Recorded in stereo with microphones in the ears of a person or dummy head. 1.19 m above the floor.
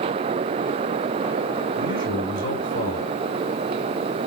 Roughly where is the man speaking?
Right.